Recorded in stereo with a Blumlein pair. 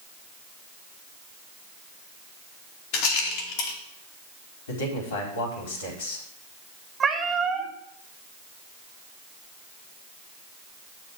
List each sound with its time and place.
2.9 s a rattle: 45° left, 2.5 m
4.7 s a man speaking: 60° left, 4.5 m
7.0 s a cat meowing: 20° right, 2.0 m